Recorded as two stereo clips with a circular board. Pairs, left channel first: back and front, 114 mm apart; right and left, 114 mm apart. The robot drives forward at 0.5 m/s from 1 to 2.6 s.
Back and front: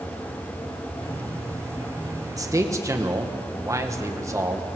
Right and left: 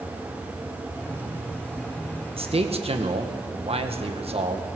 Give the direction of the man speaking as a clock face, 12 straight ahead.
10 o'clock.